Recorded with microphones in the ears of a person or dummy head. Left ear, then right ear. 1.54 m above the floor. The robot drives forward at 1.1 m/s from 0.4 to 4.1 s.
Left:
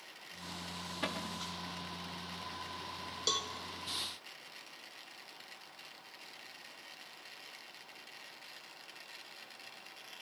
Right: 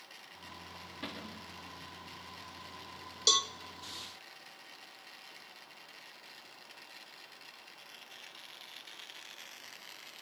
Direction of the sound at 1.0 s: 30° left (ahead or behind).